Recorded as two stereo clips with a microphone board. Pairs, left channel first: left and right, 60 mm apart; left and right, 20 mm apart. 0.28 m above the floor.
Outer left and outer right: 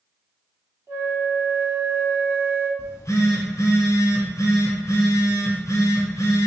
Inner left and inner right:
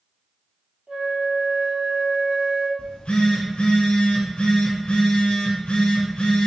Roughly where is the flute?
Right.